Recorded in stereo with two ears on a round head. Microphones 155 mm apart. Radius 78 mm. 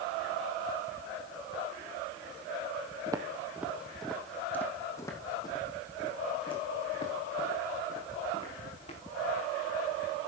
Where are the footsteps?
25° right (ahead or behind), 1.4 m; by 9.0 s 40° left (ahead or behind), 4.5 m.